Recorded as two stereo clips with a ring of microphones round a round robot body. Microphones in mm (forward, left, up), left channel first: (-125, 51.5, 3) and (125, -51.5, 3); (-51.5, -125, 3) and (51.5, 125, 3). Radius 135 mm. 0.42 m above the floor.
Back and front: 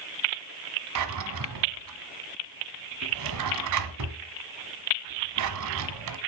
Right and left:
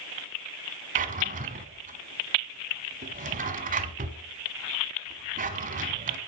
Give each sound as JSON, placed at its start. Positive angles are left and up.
{"t": 0.9, "sound": "a drawer", "azimuth_deg": 5, "distance_m": 1.5}